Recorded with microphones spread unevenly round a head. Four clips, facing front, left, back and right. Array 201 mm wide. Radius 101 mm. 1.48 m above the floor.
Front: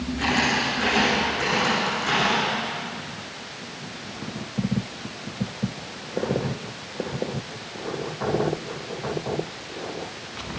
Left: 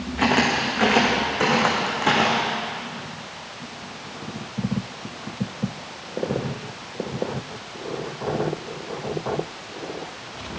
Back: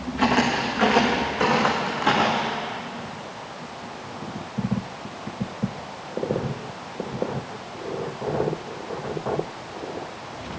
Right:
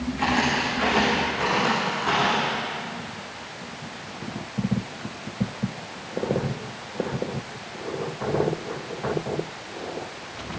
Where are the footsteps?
105° left, 6.5 m; by 2.5 s 115° left, 6.5 m.